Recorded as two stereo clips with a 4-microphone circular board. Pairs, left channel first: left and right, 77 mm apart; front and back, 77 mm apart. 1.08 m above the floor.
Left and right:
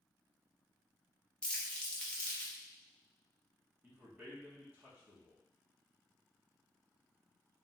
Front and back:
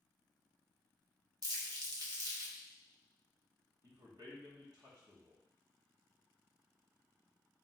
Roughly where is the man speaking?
Behind right.